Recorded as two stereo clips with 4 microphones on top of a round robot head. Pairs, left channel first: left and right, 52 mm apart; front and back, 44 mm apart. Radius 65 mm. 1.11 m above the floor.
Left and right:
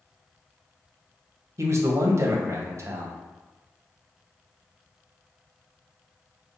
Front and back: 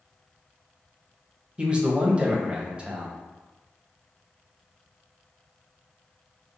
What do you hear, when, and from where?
1.6 s a man speaking: 115° right, 0.7 m